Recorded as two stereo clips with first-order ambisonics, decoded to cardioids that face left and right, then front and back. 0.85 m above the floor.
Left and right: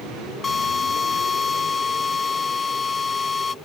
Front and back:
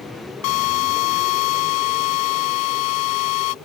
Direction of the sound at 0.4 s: 15° left.